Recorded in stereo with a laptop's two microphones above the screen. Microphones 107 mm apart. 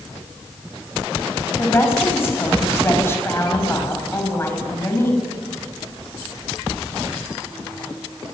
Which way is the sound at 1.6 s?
25° left (ahead or behind).